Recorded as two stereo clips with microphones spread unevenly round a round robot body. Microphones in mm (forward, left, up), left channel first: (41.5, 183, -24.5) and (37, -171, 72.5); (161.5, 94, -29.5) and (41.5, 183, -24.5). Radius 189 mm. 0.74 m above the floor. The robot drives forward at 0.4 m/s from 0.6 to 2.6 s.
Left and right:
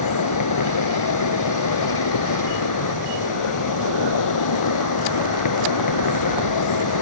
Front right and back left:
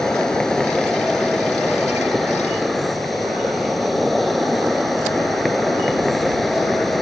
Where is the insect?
50° left; by 7.0 s 55° left.